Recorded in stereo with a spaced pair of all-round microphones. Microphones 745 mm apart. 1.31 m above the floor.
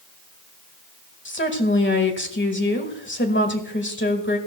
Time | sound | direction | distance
1.2 | a woman speaking | 15° left (ahead or behind) | 1.7 m